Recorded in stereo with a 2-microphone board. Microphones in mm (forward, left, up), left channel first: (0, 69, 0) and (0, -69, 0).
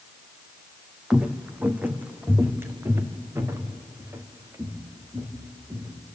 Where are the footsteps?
5° right (ahead or behind), 1.3 m; by 6.0 s 25° right (ahead or behind), 4 m.